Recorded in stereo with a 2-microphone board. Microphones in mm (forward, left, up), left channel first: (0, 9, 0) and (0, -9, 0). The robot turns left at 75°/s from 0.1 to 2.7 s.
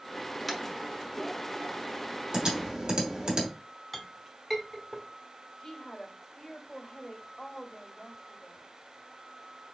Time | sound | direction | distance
0.5 | tapping | 5° left (ahead or behind) | 1.0 m
2.3 | typing on a keyboard | 50° right (ahead or behind) | 1.4 m
3.9 | a clink | 10° left (ahead or behind) | 0.9 m
5.6 | a woman speaking | 40° left (ahead or behind) | 2 m